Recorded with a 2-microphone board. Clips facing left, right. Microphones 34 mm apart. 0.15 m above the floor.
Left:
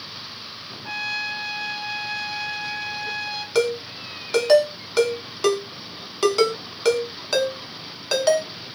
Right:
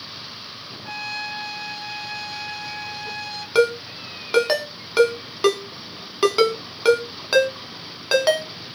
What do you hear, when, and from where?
0.8 s a trumpet: 10° left (ahead or behind), 0.7 m
3.5 s a ringtone: 20° right (ahead or behind), 0.5 m